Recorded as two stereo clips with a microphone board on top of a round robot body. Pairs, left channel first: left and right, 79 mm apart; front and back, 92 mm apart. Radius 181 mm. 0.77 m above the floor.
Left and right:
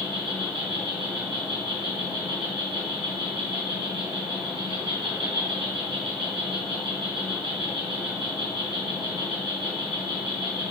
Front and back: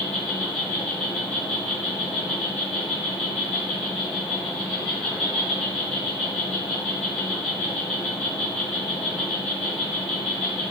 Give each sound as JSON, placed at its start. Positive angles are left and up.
{"t": 0.0, "sound": "an insect", "azimuth_deg": -80, "distance_m": 2.5}